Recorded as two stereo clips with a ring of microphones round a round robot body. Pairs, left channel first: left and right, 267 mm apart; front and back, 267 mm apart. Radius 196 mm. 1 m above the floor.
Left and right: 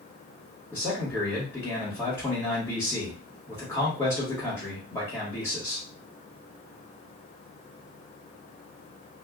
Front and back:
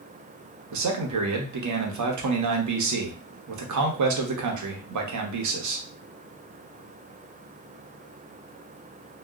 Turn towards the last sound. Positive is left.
turn(degrees=170)